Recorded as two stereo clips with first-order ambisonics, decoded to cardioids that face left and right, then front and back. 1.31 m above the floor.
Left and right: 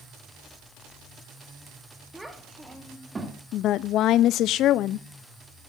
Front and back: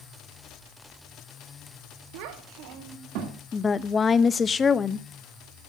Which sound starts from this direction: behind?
A child speaking, at 2.1 s.